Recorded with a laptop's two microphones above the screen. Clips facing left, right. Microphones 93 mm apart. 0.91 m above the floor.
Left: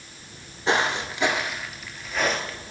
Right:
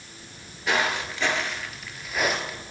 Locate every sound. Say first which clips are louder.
0.7 s footsteps: left 2 dB; 30° left (ahead or behind), 1.1 m; by 2.7 s 15° right (ahead or behind), 1.3 m